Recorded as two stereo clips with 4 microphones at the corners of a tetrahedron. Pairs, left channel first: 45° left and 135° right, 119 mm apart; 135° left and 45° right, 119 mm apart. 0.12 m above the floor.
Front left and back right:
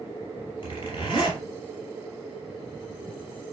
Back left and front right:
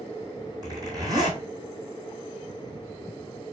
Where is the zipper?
5° left, 1.7 m.